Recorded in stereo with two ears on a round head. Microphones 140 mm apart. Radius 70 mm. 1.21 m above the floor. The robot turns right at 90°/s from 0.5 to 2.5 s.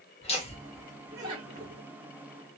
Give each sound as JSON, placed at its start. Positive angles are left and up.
{"t": 0.2, "sound": "laughter", "side_deg": 40, "distance_m": 1.2}